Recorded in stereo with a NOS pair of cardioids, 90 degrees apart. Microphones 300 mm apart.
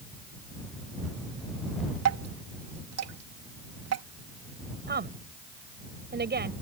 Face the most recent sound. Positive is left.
turn(degrees=-35)